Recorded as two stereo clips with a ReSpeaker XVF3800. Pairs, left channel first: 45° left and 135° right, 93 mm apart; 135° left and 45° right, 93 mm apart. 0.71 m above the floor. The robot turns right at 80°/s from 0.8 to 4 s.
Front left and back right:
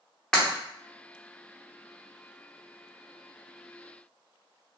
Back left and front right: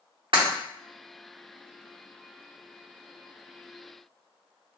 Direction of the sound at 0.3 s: 35° right.